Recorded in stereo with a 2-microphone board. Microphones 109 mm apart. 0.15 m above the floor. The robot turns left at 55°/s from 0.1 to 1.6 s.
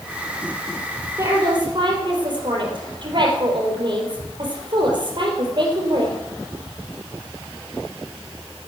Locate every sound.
1.2 s a woman speaking: 25° right (ahead or behind), 4 m; by 6.2 s 45° right (ahead or behind), 4 m